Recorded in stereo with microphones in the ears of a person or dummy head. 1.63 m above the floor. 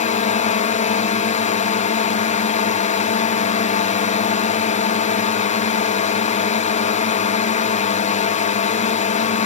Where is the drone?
35° left (ahead or behind).